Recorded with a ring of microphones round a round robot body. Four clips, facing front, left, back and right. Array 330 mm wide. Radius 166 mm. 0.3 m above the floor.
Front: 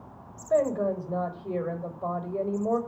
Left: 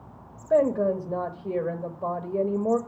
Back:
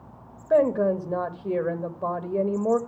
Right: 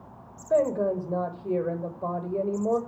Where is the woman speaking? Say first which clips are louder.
Left 2 dB, back 4 dB; 175° left, 1.1 m.